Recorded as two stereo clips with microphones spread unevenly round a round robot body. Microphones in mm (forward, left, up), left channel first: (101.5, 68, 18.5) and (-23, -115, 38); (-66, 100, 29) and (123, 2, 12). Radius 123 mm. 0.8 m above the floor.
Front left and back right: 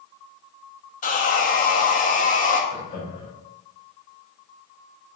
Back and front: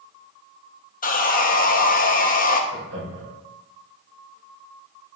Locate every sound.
1.0 s sawing: 105° left, 0.9 m
2.7 s laughter: 5° left, 3.5 m